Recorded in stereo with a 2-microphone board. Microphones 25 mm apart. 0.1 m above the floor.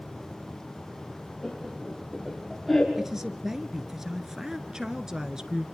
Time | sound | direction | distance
1.4 | laughter | centre (ahead or behind) | 5.5 m
3.0 | a man speaking | 20° right (ahead or behind) | 1.6 m
4.7 | a woman speaking | 25° right (ahead or behind) | 1.4 m